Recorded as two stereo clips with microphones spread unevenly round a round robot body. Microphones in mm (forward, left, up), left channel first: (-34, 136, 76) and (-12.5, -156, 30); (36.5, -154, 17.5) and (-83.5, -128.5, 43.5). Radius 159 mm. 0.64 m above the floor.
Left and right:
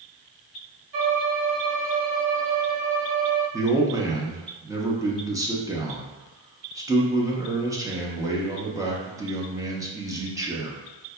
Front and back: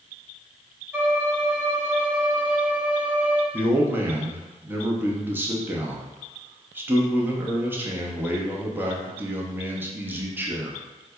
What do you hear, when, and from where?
0.9 s a violin: 110° right, 1.8 m
3.5 s a man speaking: 110° right, 0.7 m